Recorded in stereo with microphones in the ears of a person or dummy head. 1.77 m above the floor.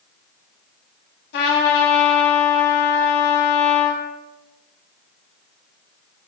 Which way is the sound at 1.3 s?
55° left (ahead or behind).